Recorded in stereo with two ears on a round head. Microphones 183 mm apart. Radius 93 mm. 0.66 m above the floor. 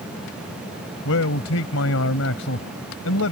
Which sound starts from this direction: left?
A man speaking, at 1.1 s.